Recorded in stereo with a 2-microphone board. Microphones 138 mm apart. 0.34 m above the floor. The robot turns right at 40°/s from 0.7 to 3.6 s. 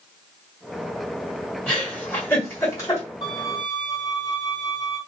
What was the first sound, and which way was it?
A giggle, 10° left (ahead or behind).